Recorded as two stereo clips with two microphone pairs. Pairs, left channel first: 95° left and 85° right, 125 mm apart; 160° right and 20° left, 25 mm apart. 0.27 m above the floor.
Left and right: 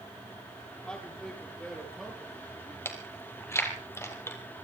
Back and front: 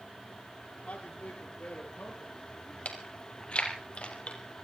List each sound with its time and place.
0.8 s a man speaking: 175° left, 6.5 m; by 2.8 s 170° right, 5.5 m
2.9 s chewing: 165° left, 2.5 m